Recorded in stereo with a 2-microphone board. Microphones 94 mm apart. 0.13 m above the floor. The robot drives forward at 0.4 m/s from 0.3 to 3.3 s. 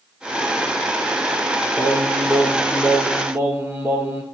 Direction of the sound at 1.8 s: 35° right (ahead or behind).